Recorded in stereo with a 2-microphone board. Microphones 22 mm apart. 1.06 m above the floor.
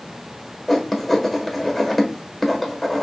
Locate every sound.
0.7 s writing: 15° left (ahead or behind), 1.2 m